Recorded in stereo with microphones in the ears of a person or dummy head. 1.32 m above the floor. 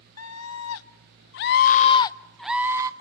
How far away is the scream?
About 1.4 m.